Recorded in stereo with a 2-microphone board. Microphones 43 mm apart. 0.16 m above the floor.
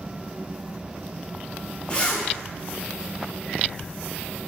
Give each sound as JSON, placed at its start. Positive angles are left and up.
{"t": 1.9, "sound": "a zipper", "side_deg": 25, "distance_m": 0.7}